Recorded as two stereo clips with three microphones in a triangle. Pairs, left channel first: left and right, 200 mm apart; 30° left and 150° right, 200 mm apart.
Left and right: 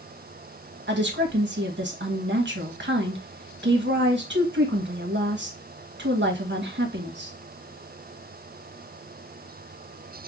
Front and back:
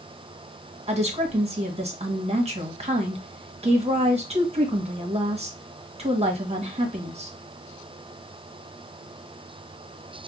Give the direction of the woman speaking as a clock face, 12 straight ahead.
3 o'clock.